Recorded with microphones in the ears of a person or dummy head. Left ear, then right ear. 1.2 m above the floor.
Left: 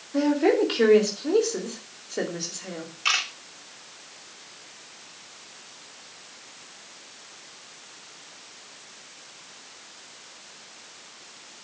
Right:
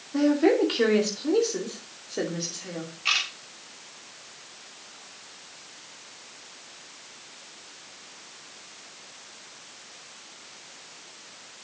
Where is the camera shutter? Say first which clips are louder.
Left 1 dB; 45° left (ahead or behind), 4.5 m.